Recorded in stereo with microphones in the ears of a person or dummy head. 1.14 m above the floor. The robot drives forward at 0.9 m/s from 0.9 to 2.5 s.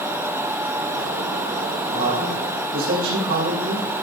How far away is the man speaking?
About 4.5 m.